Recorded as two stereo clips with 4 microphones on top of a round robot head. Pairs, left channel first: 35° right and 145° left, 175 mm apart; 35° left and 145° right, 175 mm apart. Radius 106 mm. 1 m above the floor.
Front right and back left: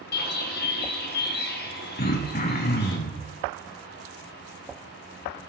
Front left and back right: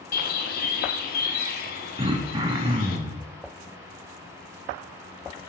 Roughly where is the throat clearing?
Right.